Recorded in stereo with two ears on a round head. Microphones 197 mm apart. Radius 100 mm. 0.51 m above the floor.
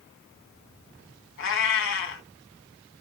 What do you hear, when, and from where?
1.4 s a cat meowing: 65° left (ahead or behind), 1.7 m